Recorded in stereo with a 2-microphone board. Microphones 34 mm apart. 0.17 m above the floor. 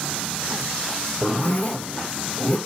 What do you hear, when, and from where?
1.2 s a zipper: 40° left (ahead or behind), 1.1 m